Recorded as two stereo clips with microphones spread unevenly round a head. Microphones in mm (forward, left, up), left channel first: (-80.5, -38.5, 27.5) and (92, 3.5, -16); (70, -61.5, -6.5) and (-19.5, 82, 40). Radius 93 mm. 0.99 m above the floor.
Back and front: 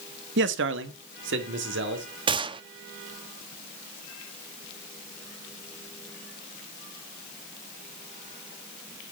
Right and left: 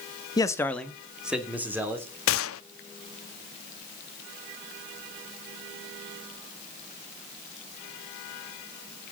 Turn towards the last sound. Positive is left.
turn(degrees=-55)